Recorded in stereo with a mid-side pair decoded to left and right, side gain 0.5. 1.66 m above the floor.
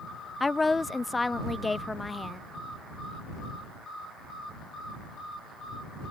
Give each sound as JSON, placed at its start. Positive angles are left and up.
{"t": 0.4, "sound": "a woman speaking", "azimuth_deg": 20}